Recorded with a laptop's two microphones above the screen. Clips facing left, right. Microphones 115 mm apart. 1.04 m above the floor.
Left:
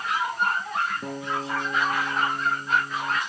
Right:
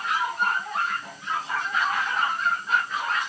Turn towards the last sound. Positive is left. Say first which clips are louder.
# left 2 dB
turn(degrees=65)  # may be behind; listen again after turning